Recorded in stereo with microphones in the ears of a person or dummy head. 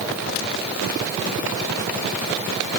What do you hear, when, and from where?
Only background noise.